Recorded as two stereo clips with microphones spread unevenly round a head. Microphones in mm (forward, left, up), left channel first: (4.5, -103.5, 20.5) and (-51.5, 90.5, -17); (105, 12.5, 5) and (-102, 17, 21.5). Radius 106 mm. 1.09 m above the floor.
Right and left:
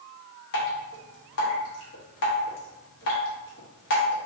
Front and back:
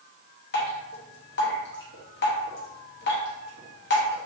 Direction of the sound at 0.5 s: 45° right.